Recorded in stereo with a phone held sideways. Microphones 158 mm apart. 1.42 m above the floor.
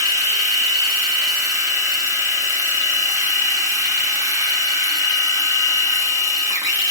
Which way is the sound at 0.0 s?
20° right (ahead or behind).